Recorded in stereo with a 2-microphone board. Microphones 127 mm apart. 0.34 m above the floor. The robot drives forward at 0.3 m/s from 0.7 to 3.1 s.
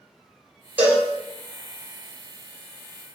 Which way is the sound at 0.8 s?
15° right (ahead or behind).